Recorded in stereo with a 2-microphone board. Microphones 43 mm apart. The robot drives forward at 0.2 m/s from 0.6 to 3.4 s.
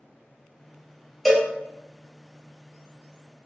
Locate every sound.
1.2 s a cowbell: centre (ahead or behind), 0.9 m